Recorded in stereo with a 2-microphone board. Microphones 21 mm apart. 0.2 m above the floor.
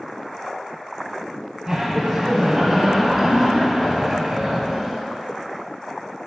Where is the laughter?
25° right (ahead or behind), 1.3 m.